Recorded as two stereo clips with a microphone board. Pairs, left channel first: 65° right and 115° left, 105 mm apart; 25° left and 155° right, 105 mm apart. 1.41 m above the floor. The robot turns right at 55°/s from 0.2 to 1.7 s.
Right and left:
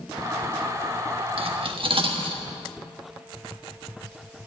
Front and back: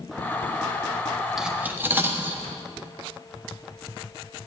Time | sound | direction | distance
1.4 | cutlery clinking | 115° left | 1.2 m